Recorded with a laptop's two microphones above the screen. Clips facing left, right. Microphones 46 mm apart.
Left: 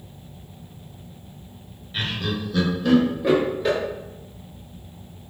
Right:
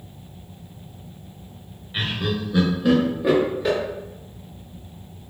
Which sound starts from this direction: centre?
Laughter, at 1.9 s.